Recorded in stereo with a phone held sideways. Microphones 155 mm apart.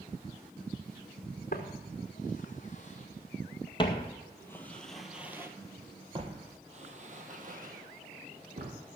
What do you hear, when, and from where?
1.5 s footsteps: 55° left (ahead or behind), 2.5 m; by 8.7 s 65° right (ahead or behind), 2.5 m